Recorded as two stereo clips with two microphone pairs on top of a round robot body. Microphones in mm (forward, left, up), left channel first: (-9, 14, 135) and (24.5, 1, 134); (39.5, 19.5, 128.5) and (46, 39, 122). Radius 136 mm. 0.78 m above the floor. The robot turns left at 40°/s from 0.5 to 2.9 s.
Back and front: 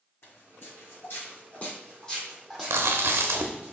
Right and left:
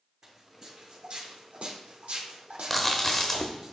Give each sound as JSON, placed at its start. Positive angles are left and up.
{"t": 0.2, "sound": "footsteps", "azimuth_deg": 155, "distance_m": 3.5}
{"t": 2.7, "sound": "chewing", "azimuth_deg": -25, "distance_m": 0.6}